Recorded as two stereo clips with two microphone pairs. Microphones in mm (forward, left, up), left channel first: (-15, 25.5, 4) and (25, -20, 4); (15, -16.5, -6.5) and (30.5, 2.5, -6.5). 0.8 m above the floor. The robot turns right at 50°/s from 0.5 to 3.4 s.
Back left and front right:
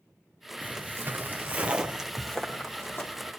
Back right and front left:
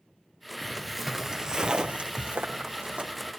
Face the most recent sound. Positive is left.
turn(degrees=100)